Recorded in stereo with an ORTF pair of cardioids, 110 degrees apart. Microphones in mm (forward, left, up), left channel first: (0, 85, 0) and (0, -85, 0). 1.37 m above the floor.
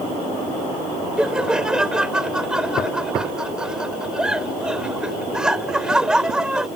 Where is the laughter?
5° right.